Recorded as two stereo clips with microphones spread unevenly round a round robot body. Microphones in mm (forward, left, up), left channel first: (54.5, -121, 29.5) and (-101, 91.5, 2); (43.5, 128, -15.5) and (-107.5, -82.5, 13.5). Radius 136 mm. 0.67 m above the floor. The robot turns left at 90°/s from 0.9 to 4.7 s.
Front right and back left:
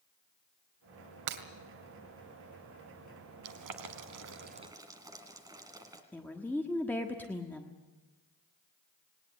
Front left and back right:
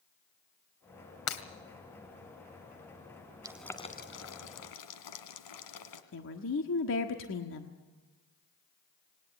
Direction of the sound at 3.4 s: 160° left.